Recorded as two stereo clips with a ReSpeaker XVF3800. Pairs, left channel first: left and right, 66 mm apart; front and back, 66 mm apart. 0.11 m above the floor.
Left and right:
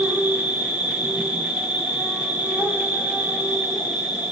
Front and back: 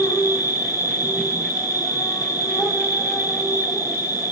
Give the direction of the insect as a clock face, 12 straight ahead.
1 o'clock.